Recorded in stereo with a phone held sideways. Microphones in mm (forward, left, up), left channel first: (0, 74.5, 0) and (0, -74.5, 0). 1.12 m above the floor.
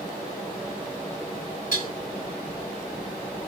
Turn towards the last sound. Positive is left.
turn(degrees=65)  # may be behind; listen again after turning